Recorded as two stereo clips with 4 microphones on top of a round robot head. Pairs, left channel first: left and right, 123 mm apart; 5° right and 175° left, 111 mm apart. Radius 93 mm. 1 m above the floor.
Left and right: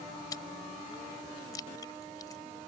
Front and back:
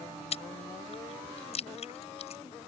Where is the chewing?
20° left.